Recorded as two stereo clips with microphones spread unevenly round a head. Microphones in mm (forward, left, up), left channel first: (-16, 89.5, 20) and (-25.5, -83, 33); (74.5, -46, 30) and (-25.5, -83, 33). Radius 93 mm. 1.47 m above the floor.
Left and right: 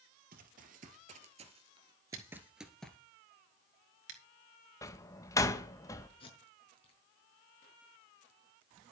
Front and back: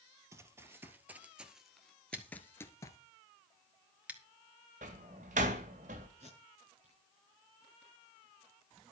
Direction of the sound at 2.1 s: 85° right.